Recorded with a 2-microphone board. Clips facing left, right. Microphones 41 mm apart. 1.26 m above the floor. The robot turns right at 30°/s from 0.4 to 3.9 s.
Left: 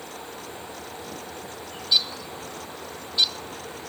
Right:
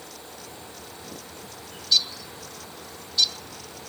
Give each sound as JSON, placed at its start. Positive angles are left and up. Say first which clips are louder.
{"t": 1.7, "sound": "a bird", "louder": "even", "side_deg": 20, "distance_m": 1.0}